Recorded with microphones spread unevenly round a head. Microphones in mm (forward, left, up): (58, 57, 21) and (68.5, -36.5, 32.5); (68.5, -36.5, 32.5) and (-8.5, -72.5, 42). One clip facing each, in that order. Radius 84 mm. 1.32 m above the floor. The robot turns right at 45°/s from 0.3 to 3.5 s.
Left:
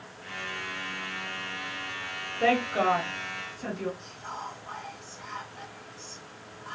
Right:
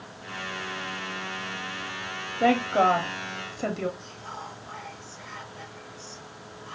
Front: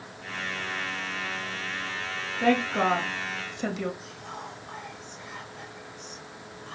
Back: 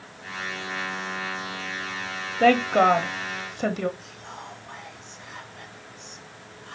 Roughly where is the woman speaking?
Behind.